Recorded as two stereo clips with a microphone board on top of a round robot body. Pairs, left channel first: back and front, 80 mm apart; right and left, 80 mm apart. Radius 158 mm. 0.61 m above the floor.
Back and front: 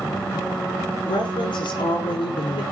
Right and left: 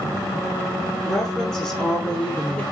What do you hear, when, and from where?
1.0 s a woman speaking: straight behind, 8.5 m; by 2.6 s 175° right, 7.5 m